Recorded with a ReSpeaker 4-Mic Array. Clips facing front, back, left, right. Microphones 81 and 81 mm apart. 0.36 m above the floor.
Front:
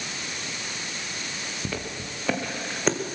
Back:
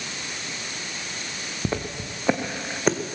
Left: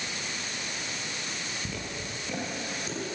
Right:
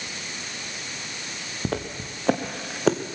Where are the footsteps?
120° right, 1.9 m; by 3.0 s 95° right, 1.3 m.